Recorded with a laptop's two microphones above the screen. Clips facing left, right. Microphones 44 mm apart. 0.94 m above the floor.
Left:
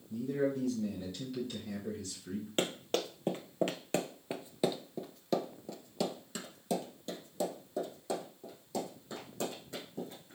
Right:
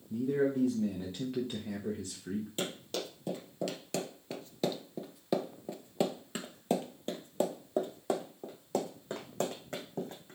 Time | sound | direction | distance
0.1 | a man speaking | 35° right (ahead or behind) | 1.2 m
2.6 | running footsteps | 50° left (ahead or behind) | 1.5 m